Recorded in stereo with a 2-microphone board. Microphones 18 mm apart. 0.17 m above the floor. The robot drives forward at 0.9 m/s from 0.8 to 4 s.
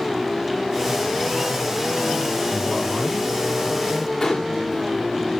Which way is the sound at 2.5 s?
75° left (ahead or behind).